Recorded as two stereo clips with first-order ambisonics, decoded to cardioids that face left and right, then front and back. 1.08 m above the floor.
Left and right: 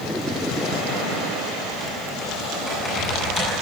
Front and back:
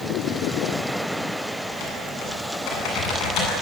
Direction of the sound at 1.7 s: 10° left.